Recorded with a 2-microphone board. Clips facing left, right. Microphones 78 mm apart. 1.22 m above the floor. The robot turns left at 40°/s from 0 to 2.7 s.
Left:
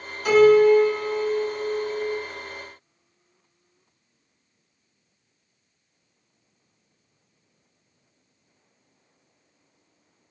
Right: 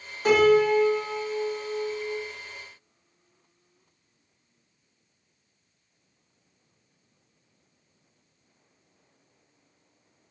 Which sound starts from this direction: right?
A piano, at 0.2 s.